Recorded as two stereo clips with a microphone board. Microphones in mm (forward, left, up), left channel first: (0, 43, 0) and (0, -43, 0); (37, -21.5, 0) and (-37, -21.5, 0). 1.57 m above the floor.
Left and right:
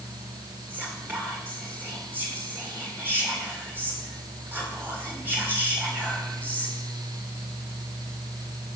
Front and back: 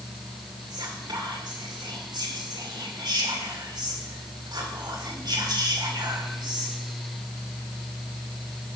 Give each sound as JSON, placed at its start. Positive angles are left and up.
{"t": 0.7, "sound": "whispering", "azimuth_deg": -160, "distance_m": 2.5}